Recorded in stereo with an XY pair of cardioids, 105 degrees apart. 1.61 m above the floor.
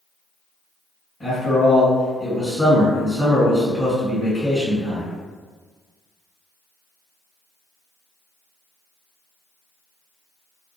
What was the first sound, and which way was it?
A man speaking, 30° left.